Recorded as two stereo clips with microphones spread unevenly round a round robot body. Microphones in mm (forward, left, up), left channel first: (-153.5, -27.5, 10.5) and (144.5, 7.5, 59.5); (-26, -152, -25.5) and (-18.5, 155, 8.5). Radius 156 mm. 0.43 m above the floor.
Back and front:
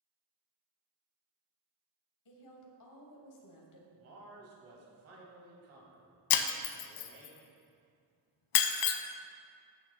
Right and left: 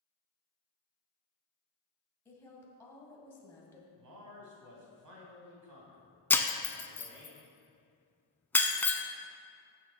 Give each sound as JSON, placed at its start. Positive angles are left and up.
{"t": 2.2, "sound": "a woman speaking", "azimuth_deg": -170, "distance_m": 2.0}
{"t": 4.0, "sound": "a man speaking", "azimuth_deg": 55, "distance_m": 3.0}
{"t": 6.3, "sound": "breaking glass", "azimuth_deg": -175, "distance_m": 0.8}